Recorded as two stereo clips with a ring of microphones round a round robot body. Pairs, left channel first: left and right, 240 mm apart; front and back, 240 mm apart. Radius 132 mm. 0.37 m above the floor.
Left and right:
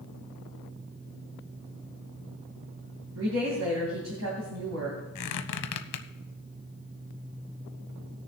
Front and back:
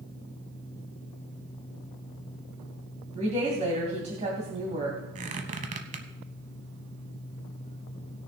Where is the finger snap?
No finger snap in this recording.